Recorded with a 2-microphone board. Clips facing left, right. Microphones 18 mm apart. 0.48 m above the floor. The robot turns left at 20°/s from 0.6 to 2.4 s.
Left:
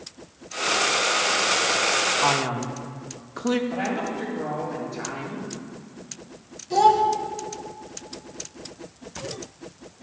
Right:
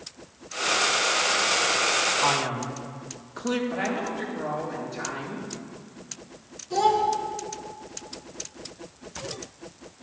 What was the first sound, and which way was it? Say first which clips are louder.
A man speaking: left 2 dB; 10° left (ahead or behind).